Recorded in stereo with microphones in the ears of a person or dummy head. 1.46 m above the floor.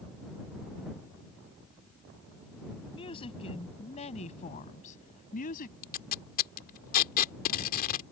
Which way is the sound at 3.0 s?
25° left (ahead or behind).